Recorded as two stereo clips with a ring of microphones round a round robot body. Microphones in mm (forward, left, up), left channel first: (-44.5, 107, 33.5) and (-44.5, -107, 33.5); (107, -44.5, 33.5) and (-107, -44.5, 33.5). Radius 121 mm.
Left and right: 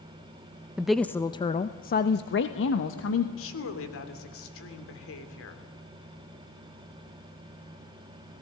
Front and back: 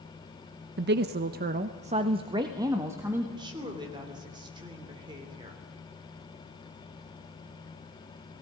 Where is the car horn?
No car horn in this recording.